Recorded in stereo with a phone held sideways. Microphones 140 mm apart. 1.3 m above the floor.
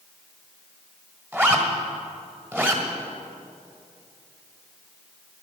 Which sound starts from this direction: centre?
A zipper, at 1.3 s.